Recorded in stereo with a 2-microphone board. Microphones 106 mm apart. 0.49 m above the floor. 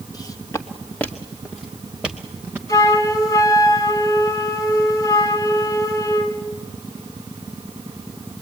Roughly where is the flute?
Left.